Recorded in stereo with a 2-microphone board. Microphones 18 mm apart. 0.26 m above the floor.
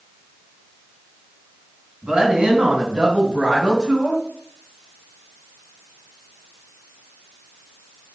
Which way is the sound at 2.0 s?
45° right (ahead or behind).